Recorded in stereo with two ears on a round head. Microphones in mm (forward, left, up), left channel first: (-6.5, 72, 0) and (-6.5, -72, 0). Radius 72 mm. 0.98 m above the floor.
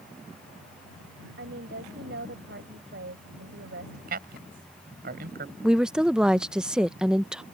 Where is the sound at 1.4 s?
75° right (ahead or behind).